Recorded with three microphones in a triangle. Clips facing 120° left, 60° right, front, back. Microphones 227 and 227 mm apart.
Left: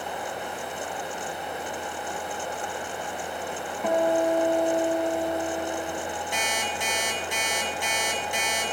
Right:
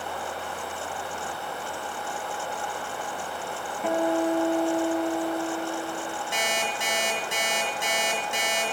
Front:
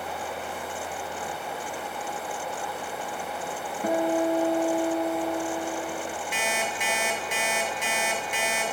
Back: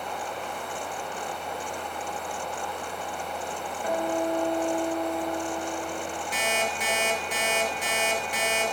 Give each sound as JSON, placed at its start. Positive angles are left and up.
{"t": 3.8, "sound": "a guitar", "azimuth_deg": 30, "distance_m": 1.9}
{"t": 6.3, "sound": "an alarm clock", "azimuth_deg": -125, "distance_m": 2.5}